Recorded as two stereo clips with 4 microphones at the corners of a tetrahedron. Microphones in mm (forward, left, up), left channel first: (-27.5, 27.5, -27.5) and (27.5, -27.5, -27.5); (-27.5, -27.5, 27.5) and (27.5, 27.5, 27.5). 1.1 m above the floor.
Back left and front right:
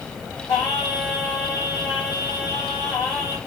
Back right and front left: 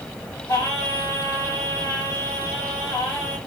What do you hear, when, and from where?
0.5 s singing: 175° left, 2.5 m